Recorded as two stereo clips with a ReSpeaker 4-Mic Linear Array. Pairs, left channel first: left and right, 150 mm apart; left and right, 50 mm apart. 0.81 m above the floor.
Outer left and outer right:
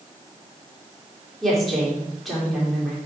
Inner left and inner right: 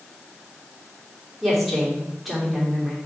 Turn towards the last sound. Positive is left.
turn(degrees=0)  # may be behind; listen again after turning